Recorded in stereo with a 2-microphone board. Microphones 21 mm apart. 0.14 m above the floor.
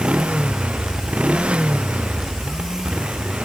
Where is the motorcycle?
75° right (ahead or behind); by 3.5 s 80° right.